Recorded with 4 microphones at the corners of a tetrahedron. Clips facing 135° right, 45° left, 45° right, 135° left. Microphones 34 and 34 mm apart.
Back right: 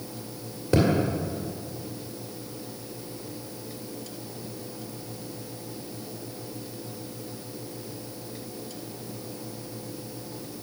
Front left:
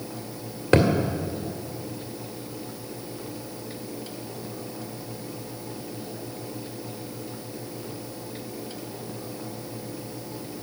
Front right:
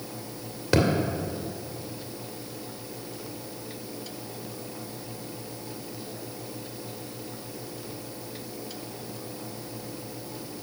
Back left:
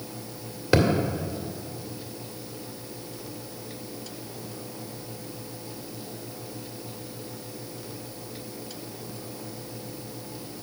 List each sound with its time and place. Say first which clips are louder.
0.7 s a thud: front left 3 dB, back left 1 dB; 55° left, 1.8 m